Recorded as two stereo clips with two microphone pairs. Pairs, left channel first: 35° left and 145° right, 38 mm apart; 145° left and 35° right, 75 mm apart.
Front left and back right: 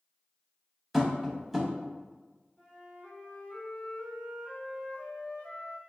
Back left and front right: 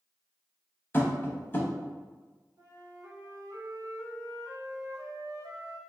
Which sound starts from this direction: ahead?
A flute, at 2.6 s.